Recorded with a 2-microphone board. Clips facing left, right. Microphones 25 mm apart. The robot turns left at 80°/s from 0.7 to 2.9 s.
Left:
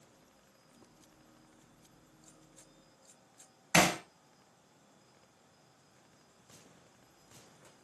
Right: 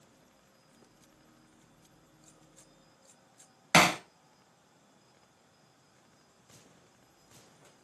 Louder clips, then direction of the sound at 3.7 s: Right 4 dB; 60° right (ahead or behind).